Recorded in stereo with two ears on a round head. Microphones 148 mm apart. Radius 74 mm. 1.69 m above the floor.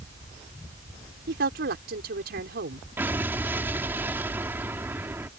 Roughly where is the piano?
No piano in this recording.